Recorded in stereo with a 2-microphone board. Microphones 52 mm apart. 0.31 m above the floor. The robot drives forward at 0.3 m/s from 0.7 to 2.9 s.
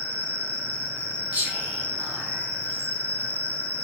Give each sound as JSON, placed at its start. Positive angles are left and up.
{"t": 0.0, "sound": "an insect", "side_deg": -70, "distance_m": 0.8}
{"t": 1.3, "sound": "whispering", "side_deg": -25, "distance_m": 1.5}